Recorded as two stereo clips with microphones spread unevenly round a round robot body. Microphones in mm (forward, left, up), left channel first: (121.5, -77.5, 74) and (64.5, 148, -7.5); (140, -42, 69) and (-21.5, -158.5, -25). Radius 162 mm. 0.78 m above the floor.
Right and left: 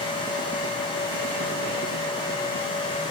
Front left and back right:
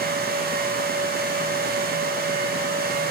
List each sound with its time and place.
Only background noise.